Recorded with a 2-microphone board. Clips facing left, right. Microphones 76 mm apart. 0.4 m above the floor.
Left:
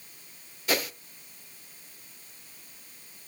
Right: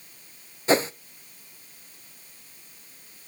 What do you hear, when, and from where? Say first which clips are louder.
0.7 s a whoosh: right 8 dB; 30° right (ahead or behind), 0.5 m